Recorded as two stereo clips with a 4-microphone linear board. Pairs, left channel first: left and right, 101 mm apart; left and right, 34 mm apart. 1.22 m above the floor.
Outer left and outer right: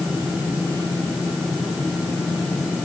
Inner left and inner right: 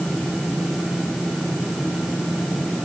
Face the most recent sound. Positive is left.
No sound to turn to.